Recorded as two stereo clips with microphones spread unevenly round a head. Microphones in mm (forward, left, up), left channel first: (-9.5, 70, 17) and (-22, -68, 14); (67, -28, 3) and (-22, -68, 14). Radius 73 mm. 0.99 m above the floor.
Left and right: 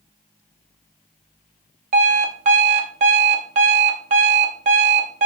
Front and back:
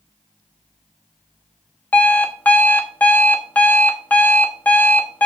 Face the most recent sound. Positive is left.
turn(degrees=-50)